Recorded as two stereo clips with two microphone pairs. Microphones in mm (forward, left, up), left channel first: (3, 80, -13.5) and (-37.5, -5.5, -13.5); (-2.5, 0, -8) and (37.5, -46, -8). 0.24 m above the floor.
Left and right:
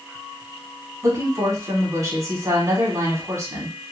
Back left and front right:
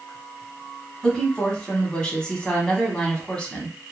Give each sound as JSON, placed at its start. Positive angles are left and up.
{"t": 1.0, "sound": "a woman speaking", "azimuth_deg": -160, "distance_m": 1.3}